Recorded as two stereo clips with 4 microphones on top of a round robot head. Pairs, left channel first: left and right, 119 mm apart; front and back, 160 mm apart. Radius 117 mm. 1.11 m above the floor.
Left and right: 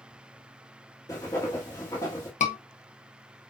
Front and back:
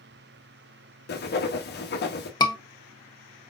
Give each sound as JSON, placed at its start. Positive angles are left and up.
{"t": 1.1, "sound": "writing", "azimuth_deg": 15, "distance_m": 1.0}
{"t": 2.4, "sound": "a scream", "azimuth_deg": 65, "distance_m": 1.3}